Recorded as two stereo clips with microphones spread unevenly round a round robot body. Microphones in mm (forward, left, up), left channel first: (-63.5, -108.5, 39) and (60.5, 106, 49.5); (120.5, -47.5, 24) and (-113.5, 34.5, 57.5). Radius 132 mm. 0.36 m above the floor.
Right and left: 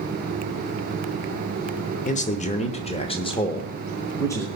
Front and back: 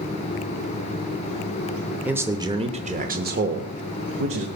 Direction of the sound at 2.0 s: 110° right.